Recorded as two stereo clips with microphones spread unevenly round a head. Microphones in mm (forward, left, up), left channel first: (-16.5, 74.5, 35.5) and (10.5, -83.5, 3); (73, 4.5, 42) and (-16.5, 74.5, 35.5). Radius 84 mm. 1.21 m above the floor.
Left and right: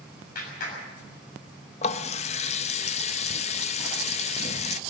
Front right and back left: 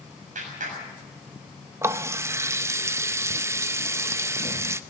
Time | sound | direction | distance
0.3 | a clap | 135° left | 7 m
1.8 | a running tap | 75° left | 0.6 m